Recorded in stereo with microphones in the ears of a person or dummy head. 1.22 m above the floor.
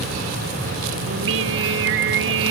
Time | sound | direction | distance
1.1 | singing | 60° right (ahead or behind) | ?